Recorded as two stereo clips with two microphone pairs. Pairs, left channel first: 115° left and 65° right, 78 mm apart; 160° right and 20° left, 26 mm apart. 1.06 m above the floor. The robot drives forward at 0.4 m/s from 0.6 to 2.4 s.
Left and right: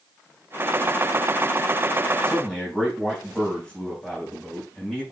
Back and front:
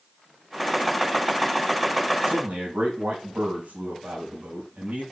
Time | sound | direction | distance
2.2 | a man speaking | 35° left | 4.5 m